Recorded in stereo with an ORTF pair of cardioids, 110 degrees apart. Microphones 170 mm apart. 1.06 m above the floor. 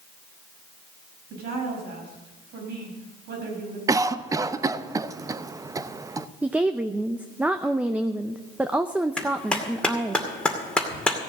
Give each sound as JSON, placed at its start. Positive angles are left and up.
{"t": 1.3, "sound": "a woman speaking", "azimuth_deg": -70, "distance_m": 5.5}
{"t": 3.9, "sound": "a cough", "azimuth_deg": -20, "distance_m": 0.7}
{"t": 6.4, "sound": "a woman speaking", "azimuth_deg": -10, "distance_m": 0.6}
{"t": 9.2, "sound": "a clap", "azimuth_deg": 5, "distance_m": 2.5}